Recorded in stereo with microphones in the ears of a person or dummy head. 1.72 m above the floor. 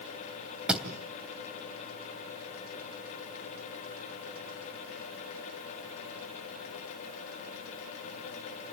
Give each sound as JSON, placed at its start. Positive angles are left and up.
{"t": 0.7, "sound": "a thud", "side_deg": -5, "distance_m": 3.0}